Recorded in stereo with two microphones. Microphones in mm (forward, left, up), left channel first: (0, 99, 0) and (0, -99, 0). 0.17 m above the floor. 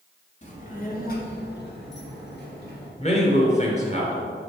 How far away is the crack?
I don't hear a crack.